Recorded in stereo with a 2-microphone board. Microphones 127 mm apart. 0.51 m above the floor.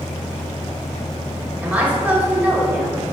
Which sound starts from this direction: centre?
A woman speaking, at 1.6 s.